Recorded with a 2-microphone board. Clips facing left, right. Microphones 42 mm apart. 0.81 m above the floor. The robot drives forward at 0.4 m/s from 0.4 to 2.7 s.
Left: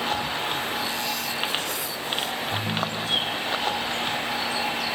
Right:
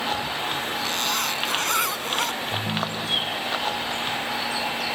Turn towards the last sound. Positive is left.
turn(degrees=-25)  # may be behind; listen again after turning